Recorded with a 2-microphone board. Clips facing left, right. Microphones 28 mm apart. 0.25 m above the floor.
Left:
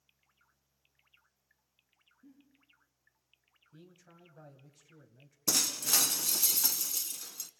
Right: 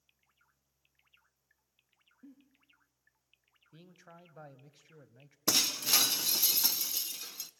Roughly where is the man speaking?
Right.